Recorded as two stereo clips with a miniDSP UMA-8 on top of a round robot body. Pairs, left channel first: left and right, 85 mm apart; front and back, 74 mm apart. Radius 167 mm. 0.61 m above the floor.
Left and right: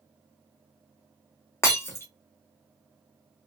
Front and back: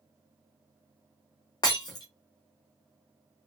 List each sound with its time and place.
1.6 s breaking glass: 30° left, 0.6 m